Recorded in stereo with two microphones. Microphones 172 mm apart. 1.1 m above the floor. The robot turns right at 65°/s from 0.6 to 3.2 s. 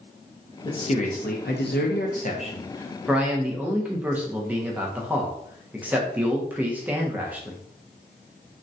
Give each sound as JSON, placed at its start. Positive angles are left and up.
{"t": 0.7, "sound": "a man speaking", "azimuth_deg": 25, "distance_m": 0.6}